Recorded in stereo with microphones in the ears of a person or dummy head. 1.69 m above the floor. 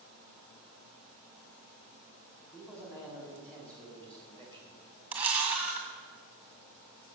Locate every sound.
2.5 s a man speaking: 10° left (ahead or behind), 5 m; by 4.8 s 15° left (ahead or behind), 3.5 m
5.1 s a camera shutter: 5° right (ahead or behind), 1.8 m